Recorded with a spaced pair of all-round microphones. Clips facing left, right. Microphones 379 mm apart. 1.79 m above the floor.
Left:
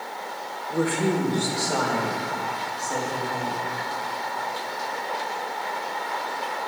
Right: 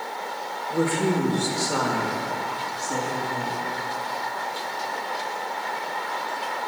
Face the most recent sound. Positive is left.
turn(degrees=-25)  # may be behind; listen again after turning